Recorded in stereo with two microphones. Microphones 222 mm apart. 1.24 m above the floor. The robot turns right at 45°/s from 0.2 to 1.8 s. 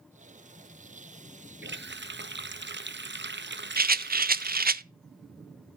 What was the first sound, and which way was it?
A running tap, 55° right (ahead or behind).